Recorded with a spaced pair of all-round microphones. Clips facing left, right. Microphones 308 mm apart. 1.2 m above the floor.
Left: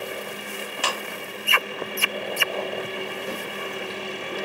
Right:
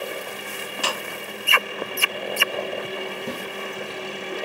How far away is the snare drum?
About 0.7 m.